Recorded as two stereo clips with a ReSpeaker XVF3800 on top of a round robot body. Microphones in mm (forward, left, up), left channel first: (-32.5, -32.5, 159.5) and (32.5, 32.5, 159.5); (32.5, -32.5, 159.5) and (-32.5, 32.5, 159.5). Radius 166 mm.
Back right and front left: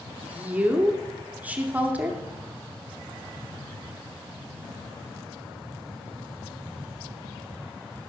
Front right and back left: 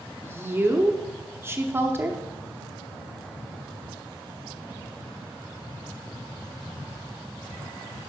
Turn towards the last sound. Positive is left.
turn(degrees=105)